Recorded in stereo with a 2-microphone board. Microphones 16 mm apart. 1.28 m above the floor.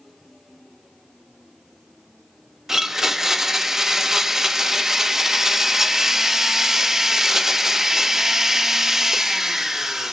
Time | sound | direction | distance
2.7 | a blender | 35° right (ahead or behind) | 1.3 m